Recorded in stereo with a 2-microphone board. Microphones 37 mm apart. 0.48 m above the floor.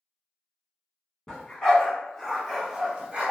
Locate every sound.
1.3 s a dog barking: 20° left (ahead or behind), 1.4 m; by 3.3 s 40° right (ahead or behind), 0.7 m